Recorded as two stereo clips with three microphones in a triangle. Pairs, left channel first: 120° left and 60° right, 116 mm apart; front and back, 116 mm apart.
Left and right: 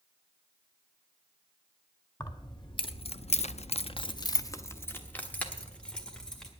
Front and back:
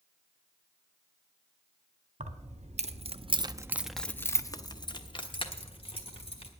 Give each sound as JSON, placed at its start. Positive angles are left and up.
{"t": 2.2, "sound": "keys jangling", "azimuth_deg": 175, "distance_m": 1.1}